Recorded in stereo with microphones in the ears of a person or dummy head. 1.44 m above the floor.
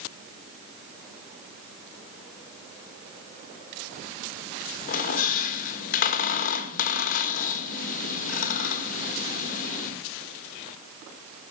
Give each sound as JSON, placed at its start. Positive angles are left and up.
{"t": 4.9, "sound": "a squeak", "side_deg": 50, "distance_m": 1.2}